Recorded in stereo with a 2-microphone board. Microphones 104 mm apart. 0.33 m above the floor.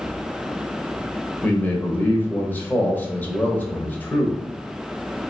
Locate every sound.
1.4 s a man speaking: 20° left (ahead or behind), 1.0 m